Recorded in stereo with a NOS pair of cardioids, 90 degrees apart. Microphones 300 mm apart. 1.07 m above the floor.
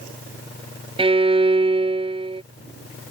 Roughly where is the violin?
Ahead.